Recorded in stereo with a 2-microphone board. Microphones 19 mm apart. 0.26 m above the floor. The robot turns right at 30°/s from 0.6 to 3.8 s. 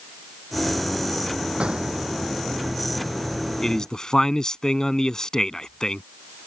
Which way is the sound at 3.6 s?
30° left (ahead or behind).